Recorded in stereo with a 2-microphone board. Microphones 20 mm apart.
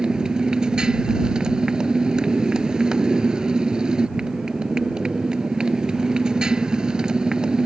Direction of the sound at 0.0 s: 40° right (ahead or behind).